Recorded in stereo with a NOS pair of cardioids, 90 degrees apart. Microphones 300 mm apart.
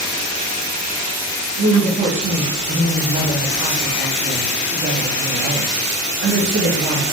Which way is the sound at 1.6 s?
40° right.